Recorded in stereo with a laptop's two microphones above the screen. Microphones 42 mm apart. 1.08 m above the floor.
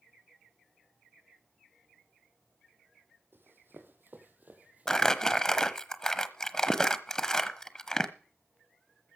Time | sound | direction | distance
3.3 | running footsteps | 60° right (ahead or behind) | 3 m
4.9 | crumpling | 15° left (ahead or behind) | 1.0 m